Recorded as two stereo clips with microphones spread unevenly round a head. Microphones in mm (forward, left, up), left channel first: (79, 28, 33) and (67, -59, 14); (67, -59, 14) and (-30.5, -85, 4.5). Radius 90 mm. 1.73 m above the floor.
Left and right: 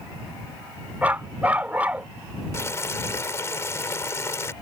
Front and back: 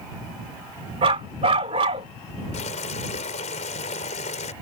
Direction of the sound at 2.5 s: 25° left.